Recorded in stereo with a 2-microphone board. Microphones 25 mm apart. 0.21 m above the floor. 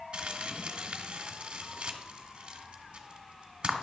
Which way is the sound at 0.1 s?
50° right (ahead or behind).